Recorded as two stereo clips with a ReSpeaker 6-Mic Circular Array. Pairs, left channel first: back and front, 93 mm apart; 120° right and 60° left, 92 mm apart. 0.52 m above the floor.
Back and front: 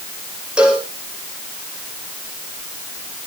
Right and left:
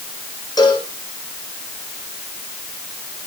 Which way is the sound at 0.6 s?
80° right.